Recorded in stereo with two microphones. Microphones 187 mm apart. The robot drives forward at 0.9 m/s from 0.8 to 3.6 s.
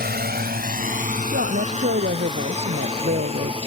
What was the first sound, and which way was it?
A drone, 60° right (ahead or behind).